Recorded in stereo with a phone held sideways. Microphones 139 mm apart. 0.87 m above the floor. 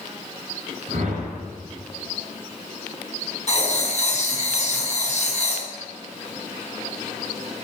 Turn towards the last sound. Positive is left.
turn(degrees=55)  # may be behind; listen again after turning